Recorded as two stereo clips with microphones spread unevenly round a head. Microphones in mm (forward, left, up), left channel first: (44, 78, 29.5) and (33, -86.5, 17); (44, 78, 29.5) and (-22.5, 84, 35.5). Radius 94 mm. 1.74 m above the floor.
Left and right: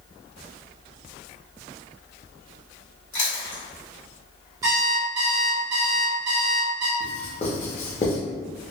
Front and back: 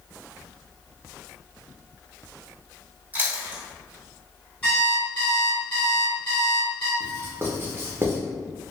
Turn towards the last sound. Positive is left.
turn(degrees=135)